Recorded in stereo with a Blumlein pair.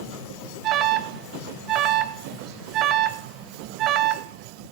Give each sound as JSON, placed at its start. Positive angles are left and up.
{"t": 0.6, "sound": "an alarm", "azimuth_deg": -35, "distance_m": 0.7}